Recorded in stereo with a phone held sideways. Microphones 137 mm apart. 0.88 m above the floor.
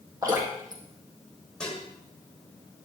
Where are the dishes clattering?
5° left (ahead or behind), 2 m.